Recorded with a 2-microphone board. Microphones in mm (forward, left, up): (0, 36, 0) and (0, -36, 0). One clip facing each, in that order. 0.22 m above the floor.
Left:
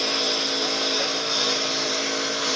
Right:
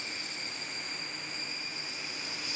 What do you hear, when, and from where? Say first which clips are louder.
0.0 s a lawn mower: left 16 dB; 85° left; by 2.6 s 70° left (ahead or behind)